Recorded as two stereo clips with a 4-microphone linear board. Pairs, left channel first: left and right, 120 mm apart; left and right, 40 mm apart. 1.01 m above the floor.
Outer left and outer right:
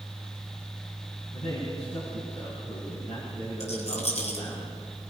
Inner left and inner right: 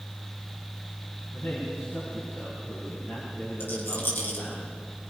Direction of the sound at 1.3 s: 70° left (ahead or behind).